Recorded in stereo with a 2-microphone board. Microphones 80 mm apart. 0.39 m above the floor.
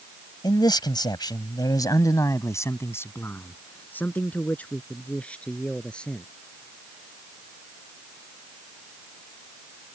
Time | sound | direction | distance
0.4 | a man speaking | 60° left (ahead or behind) | ?